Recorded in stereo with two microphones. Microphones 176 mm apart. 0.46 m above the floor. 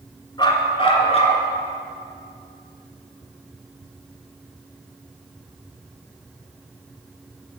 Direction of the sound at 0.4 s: 25° left (ahead or behind).